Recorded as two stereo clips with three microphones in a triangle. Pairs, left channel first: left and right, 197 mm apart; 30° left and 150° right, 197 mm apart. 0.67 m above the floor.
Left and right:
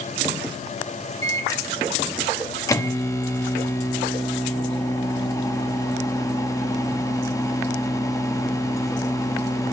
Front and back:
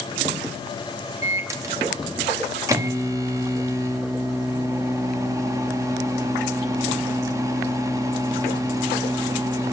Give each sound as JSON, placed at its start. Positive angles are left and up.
{"t": 1.2, "sound": "a microwave", "azimuth_deg": 150, "distance_m": 0.8}